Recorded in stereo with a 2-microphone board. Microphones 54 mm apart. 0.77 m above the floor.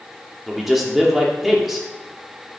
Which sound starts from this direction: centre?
A man speaking, at 0.5 s.